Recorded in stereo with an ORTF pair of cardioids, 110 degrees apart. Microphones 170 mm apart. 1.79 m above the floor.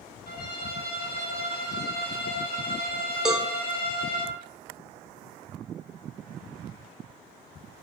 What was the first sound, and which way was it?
A violin, 65° left.